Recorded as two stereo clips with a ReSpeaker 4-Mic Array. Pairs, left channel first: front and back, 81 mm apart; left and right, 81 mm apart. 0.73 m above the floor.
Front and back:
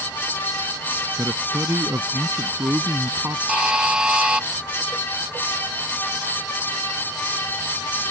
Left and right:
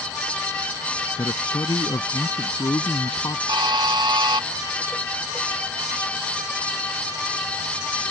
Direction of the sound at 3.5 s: 105° right.